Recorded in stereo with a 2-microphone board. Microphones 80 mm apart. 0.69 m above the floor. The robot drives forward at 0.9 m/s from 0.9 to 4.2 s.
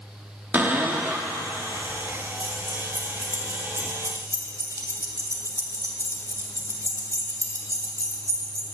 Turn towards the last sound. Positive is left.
turn(degrees=-45)  # may be behind; listen again after turning